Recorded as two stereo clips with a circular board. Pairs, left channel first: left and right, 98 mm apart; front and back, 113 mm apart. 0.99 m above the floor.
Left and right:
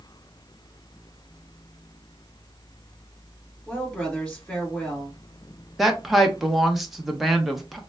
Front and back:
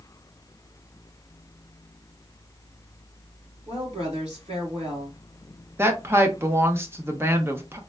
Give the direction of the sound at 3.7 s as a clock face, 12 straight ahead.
6 o'clock.